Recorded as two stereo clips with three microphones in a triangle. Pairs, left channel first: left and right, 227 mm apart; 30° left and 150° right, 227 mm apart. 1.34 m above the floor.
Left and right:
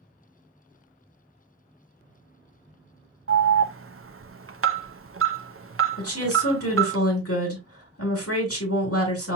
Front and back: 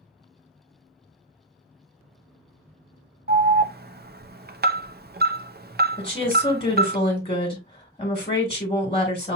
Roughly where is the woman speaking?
Left.